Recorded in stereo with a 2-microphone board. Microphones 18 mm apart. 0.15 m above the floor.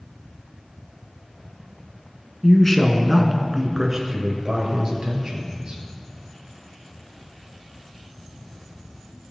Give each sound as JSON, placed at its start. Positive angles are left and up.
{"t": 2.4, "sound": "a man speaking", "side_deg": 20, "distance_m": 1.3}